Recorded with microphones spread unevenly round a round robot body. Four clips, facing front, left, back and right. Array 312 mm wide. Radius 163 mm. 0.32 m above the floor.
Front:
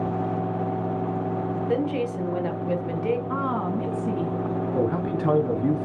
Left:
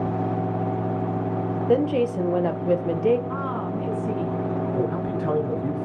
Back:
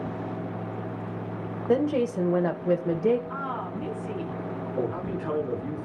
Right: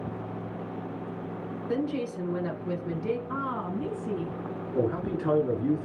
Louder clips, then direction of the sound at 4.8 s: Left 3 dB, front 4 dB; 15° right.